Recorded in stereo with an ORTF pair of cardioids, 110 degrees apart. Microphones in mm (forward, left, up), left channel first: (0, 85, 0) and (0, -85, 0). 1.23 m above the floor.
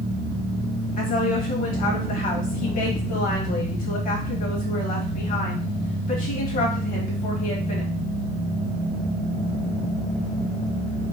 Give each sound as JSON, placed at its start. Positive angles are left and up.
{"t": 1.0, "sound": "a woman speaking", "azimuth_deg": 50, "distance_m": 1.3}